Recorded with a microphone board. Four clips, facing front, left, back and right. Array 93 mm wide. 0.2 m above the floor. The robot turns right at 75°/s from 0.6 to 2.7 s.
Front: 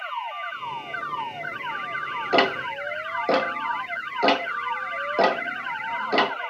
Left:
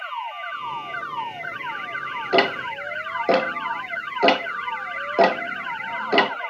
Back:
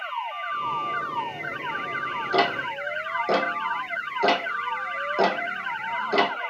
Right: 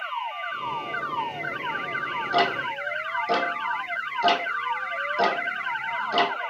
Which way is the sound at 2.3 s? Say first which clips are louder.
Left 4 dB, front 2 dB; 45° left.